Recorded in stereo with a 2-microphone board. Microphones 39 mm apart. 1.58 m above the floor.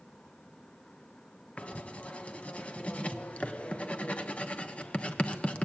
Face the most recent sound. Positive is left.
turn(degrees=35)  # may be behind; listen again after turning